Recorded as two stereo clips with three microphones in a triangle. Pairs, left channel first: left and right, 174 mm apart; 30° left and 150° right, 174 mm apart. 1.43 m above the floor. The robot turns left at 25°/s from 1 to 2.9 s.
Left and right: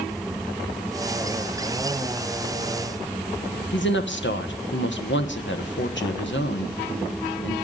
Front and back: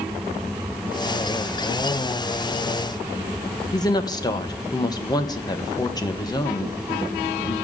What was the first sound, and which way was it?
A woman speaking, 100° left.